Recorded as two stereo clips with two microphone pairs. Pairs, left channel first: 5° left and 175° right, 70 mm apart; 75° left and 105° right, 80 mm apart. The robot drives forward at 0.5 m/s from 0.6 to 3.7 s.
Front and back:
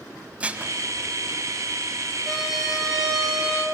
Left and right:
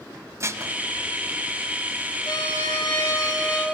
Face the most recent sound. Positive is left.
turn(degrees=110)